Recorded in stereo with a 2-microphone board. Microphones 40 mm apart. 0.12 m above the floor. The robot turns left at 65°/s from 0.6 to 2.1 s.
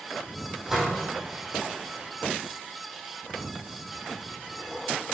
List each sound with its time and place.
0.7 s a door slam: 5° right (ahead or behind), 4 m; by 1.0 s 25° right (ahead or behind), 4 m